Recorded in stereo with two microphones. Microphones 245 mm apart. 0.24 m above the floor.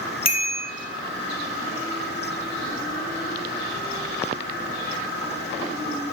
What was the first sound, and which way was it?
A bicycle bell, 80° left.